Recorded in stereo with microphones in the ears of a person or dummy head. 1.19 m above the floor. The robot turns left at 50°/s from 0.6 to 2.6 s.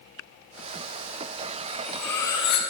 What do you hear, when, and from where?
1.7 s cutlery clinking: 170° right, 0.6 m; by 2.6 s 140° left, 0.6 m